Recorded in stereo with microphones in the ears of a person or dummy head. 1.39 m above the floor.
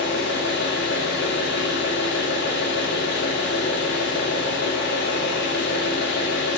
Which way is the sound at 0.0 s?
65° left (ahead or behind).